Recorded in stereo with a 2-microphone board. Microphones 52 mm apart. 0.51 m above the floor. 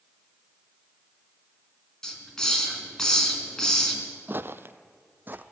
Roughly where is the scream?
No scream in this recording.